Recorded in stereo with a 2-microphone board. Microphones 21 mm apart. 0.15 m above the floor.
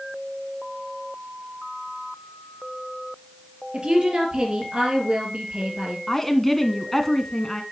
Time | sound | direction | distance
3.7 | a woman speaking | 45° right (ahead or behind) | 3.5 m
6.1 | a woman speaking | 10° left (ahead or behind) | 1.2 m